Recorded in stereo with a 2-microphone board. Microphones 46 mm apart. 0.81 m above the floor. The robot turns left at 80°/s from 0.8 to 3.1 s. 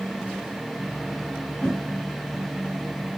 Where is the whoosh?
25° left (ahead or behind), 6.5 m; by 1.8 s 10° left (ahead or behind), 6.5 m.